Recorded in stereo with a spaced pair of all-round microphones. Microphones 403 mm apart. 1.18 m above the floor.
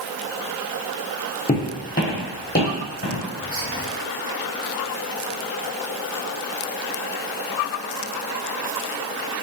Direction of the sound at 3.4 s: 30° right (ahead or behind).